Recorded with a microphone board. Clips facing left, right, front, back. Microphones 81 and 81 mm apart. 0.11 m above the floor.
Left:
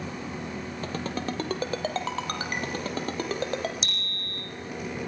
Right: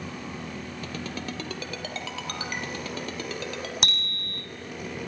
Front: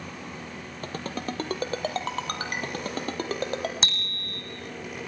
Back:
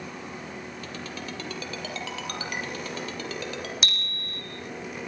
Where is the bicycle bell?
60° right, 3.5 m.